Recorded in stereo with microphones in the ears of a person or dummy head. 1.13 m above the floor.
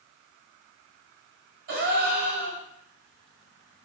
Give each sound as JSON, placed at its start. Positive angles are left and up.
{"t": 1.7, "sound": "a gasp", "side_deg": -50, "distance_m": 1.2}